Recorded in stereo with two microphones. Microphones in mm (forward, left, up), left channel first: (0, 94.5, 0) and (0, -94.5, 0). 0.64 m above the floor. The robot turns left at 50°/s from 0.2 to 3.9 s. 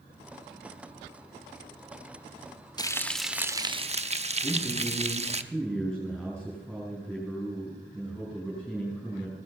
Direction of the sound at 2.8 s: 20° left.